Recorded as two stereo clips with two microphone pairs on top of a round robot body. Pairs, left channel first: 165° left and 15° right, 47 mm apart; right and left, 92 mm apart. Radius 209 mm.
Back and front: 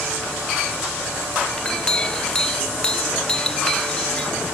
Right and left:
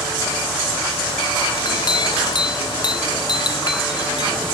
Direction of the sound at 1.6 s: 125° right.